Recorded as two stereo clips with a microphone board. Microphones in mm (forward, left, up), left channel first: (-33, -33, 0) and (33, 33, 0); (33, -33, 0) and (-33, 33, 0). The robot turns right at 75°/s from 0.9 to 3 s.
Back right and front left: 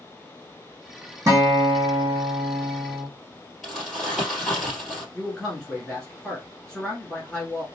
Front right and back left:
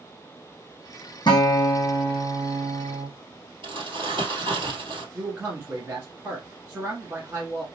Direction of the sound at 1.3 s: 10° right.